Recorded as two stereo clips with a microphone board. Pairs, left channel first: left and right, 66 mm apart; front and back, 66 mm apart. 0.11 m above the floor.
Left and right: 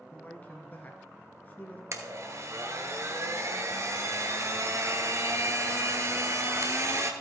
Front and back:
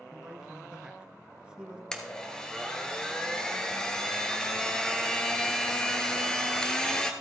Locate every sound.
0.1 s a man speaking: 115° left, 1.2 m
1.9 s a blender: 75° right, 1.2 m